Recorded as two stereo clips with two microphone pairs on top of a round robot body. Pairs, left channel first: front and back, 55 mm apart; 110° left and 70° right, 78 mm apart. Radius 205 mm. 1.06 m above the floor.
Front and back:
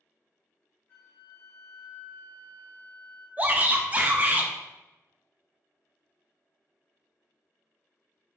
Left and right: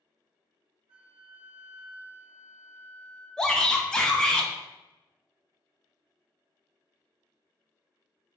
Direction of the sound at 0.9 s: 50° right.